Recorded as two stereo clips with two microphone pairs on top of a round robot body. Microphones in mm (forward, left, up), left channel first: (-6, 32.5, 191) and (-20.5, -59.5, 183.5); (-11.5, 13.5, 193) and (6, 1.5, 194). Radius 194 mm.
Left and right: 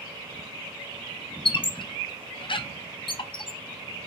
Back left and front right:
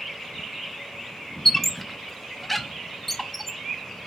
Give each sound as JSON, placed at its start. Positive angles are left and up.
{"t": 1.4, "sound": "a squeak", "azimuth_deg": 65, "distance_m": 0.5}